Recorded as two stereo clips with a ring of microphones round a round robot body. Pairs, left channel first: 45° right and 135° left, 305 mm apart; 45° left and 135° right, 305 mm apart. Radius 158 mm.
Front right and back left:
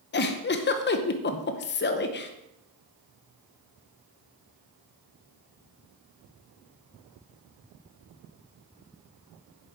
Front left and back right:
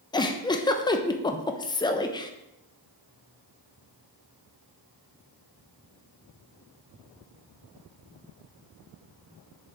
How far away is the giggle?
About 0.7 m.